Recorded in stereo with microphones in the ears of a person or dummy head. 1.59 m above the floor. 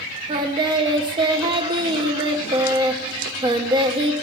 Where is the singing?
25° right (ahead or behind), 0.8 m.